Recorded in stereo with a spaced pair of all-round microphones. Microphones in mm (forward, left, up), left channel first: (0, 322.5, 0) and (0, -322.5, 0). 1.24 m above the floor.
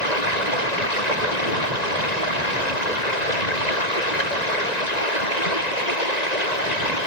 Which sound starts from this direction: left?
Running water, at 0.0 s.